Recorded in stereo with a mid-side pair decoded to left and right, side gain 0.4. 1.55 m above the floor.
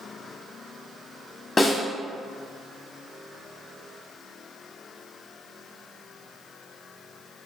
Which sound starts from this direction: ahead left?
A snare drum, at 1.6 s.